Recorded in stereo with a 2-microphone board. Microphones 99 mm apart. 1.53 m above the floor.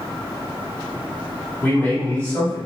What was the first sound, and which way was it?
A man speaking, 20° left (ahead or behind).